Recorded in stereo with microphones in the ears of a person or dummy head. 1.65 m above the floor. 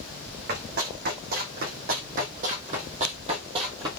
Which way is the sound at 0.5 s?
50° right (ahead or behind).